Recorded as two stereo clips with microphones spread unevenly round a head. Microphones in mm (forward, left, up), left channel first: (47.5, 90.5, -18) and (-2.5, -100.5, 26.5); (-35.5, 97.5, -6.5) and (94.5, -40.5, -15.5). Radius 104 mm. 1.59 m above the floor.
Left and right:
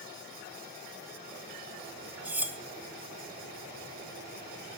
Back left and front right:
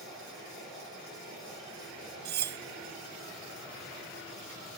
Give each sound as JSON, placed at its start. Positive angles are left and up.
{"t": 2.2, "sound": "cutlery clinking", "azimuth_deg": -35, "distance_m": 0.9}